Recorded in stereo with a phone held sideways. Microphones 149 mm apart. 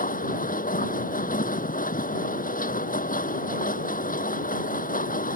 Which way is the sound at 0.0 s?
70° left (ahead or behind).